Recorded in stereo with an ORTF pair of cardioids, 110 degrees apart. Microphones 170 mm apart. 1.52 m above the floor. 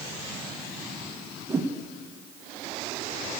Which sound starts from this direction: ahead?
A whoosh, at 1.5 s.